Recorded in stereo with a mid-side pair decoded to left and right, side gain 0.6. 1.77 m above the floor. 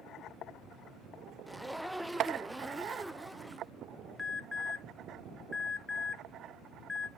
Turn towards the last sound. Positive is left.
turn(degrees=15)